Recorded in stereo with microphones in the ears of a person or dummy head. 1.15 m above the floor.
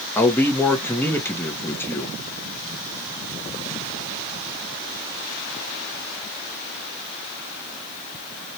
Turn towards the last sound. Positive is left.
turn(degrees=10)  # may be behind; listen again after turning